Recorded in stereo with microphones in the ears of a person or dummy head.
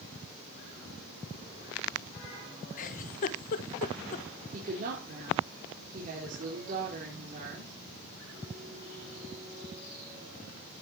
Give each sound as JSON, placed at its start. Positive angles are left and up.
{"t": 2.8, "sound": "a giggle", "side_deg": 45, "distance_m": 1.0}
{"t": 4.5, "sound": "a woman speaking", "side_deg": -50, "distance_m": 4.0}